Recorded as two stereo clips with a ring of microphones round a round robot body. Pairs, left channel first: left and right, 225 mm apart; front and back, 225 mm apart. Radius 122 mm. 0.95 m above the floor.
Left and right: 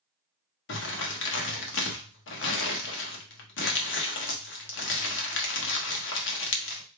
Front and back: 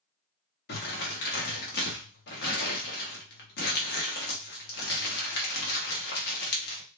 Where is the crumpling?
55° left, 1.0 m.